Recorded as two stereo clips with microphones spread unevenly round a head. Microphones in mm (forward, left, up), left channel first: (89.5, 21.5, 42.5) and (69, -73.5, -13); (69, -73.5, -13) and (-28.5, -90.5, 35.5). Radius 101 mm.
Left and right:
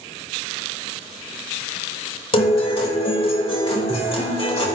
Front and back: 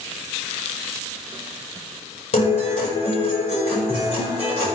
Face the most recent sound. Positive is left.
turn(degrees=45)